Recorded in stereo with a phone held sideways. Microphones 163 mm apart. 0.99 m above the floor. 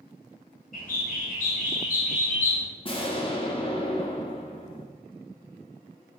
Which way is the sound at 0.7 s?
60° left (ahead or behind).